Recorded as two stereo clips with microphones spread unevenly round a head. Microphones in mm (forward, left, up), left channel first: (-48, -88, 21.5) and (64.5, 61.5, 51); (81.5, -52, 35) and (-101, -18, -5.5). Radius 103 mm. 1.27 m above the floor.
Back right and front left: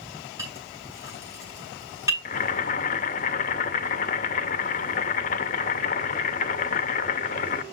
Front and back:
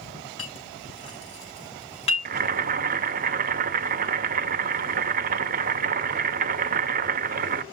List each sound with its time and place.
0.4 s a clink: 20° right, 6.5 m
2.2 s boiling: 165° right, 0.7 m